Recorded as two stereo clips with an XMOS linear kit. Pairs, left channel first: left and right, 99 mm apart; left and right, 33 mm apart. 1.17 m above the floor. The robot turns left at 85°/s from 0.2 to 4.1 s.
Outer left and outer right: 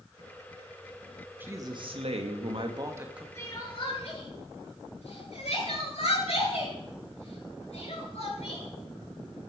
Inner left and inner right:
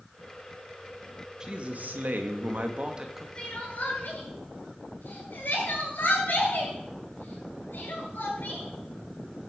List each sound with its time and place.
1.4 s a man speaking: 20° right, 2 m; by 3.2 s 175° right, 2 m
3.4 s crying: 20° left (ahead or behind), 9 m; by 8.7 s 85° left, 9 m